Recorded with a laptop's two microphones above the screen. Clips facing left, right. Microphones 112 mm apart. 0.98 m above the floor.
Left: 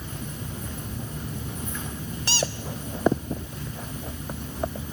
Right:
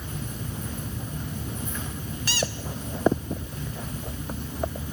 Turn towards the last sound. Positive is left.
turn(degrees=30)  # may be behind; listen again after turning